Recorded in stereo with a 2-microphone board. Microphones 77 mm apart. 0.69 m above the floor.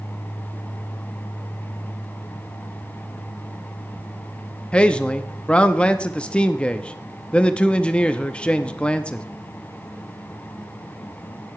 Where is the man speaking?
15° left (ahead or behind), 0.6 m.